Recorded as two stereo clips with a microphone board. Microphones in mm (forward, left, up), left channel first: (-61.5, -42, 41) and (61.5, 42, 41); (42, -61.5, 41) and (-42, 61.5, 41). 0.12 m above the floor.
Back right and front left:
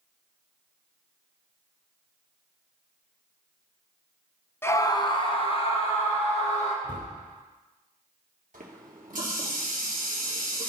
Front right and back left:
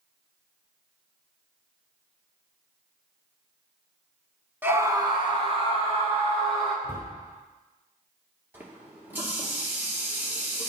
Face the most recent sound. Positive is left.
turn(degrees=50)